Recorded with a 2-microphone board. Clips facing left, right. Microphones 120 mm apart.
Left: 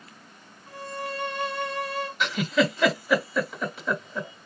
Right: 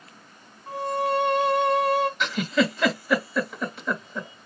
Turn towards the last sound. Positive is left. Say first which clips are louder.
# even
turn(degrees=0)  # may be behind; listen again after turning